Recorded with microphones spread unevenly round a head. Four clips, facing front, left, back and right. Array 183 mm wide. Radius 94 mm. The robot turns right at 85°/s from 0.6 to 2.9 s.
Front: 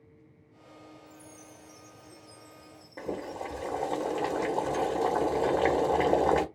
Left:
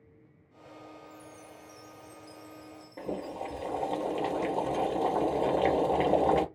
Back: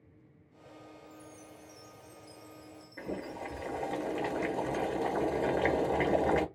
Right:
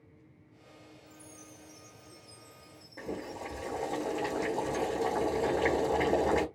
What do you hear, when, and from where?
1.1 s a chime: 15° left, 0.8 m; by 4.0 s 170° left, 0.8 m
3.0 s boiling: 25° left, 1.1 m